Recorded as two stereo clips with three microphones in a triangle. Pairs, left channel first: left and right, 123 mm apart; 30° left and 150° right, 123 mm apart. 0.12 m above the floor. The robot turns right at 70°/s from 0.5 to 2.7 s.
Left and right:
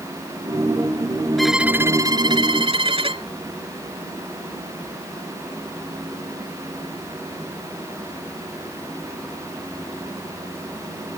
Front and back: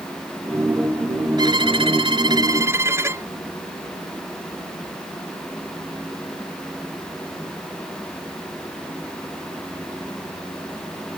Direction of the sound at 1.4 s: 175° left.